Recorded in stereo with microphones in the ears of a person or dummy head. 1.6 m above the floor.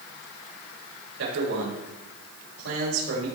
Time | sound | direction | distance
1.2 | a man speaking | 90° right | 7.5 m